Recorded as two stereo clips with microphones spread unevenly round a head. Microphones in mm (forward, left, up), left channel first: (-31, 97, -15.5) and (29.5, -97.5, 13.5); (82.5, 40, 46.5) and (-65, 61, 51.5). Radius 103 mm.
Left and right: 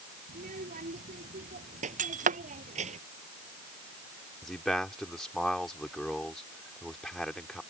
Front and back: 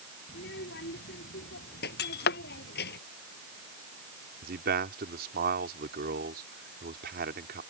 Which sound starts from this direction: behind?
A man speaking, at 4.4 s.